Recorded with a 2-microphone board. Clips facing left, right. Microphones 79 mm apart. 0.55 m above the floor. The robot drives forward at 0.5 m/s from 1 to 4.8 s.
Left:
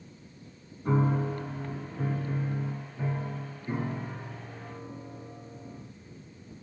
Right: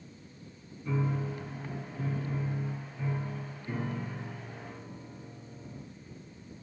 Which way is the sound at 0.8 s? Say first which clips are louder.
Left 6 dB; 55° left (ahead or behind).